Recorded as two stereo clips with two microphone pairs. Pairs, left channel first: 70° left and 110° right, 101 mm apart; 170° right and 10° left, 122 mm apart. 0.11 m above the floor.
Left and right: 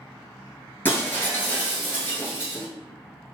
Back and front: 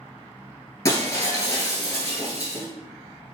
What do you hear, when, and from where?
0.8 s breaking glass: 130° left, 1.1 m